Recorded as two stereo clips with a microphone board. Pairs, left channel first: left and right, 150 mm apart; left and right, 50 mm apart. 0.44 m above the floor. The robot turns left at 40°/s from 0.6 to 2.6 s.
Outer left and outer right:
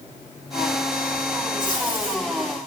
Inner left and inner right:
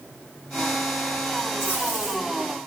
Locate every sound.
1.6 s tape being pulled: 55° left (ahead or behind), 6.5 m; by 2.2 s 80° left, 6.5 m